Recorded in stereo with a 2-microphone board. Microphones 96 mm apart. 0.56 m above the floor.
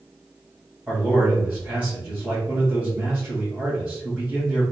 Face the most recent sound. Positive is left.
turn(degrees=-15)  # may be behind; listen again after turning